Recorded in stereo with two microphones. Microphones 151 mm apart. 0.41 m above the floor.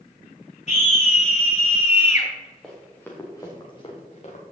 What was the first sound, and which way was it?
A scream, 50° left (ahead or behind).